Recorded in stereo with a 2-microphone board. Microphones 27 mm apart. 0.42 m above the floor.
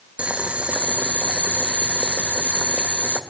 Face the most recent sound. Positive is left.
turn(degrees=-55)  # may be behind; listen again after turning